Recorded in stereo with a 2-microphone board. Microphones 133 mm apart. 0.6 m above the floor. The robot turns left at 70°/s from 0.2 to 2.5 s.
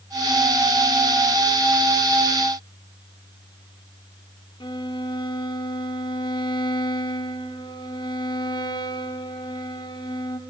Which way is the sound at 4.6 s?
35° left (ahead or behind).